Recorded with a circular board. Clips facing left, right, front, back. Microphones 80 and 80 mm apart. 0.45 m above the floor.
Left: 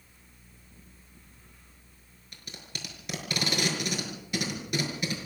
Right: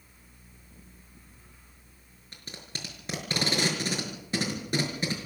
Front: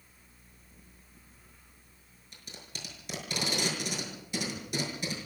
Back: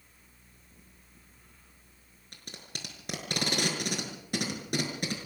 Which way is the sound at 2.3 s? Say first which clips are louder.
Right 1 dB, back 2 dB; 145° right.